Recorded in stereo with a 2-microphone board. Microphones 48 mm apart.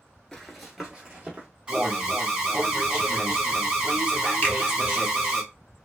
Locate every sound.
0.3 s running footsteps: 10° left (ahead or behind), 0.8 m; by 1.5 s 30° right (ahead or behind), 1.1 m
1.7 s an alarm: 20° right (ahead or behind), 0.9 m
4.4 s a finger snap: 35° left (ahead or behind), 0.9 m